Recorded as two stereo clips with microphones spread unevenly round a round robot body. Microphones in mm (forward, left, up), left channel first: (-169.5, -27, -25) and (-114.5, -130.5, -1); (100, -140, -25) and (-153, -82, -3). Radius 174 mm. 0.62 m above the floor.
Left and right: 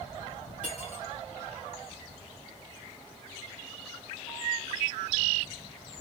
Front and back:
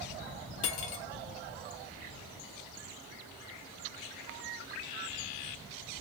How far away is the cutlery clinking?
About 0.9 m.